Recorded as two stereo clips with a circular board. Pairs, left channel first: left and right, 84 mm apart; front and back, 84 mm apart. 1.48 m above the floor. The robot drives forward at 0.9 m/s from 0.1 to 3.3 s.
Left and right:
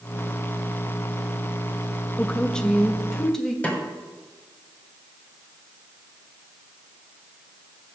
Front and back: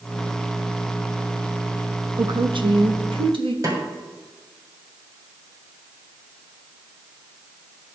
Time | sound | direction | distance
2.2 | a woman speaking | 160° left | 0.5 m
3.6 | a snare drum | 155° left | 1.8 m